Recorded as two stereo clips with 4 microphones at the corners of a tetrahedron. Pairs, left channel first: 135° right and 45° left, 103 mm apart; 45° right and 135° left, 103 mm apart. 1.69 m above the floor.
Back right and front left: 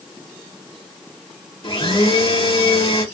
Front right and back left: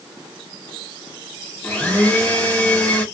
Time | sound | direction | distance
1.6 | a blender | 120° right | 2 m